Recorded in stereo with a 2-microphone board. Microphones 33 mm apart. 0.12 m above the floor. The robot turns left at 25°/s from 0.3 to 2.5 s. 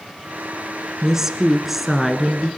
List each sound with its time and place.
1.0 s a woman speaking: 15° right (ahead or behind), 1.3 m; by 2.5 s centre (ahead or behind), 1.3 m